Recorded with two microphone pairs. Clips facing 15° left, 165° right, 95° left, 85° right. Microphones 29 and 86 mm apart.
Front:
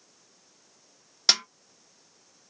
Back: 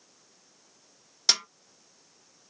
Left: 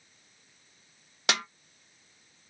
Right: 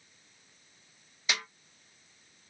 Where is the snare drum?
90° left, 1.1 m.